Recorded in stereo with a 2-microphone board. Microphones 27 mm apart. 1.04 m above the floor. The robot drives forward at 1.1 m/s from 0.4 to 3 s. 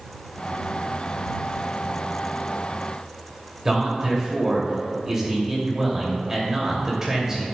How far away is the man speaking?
About 2.5 m.